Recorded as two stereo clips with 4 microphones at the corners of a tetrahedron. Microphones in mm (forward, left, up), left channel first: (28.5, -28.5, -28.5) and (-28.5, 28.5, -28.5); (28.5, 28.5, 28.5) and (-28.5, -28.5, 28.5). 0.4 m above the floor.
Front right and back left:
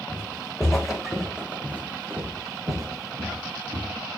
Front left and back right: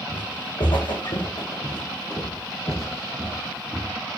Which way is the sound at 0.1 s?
35° left.